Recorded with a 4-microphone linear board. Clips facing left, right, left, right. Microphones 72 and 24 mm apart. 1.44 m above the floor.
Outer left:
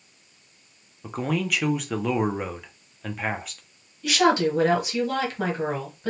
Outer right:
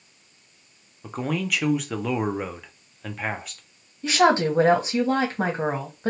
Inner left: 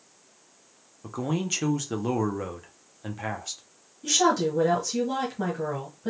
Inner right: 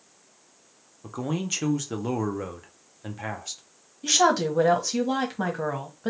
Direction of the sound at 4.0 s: 30° right (ahead or behind).